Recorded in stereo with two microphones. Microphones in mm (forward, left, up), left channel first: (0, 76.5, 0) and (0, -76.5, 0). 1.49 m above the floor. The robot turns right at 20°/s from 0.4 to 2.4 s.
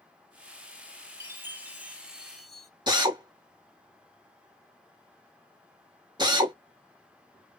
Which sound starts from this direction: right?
A drill, at 2.9 s.